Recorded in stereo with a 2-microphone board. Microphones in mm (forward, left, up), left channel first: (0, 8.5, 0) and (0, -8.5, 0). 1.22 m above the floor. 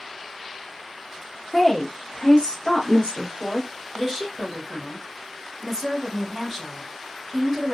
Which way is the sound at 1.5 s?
20° left (ahead or behind).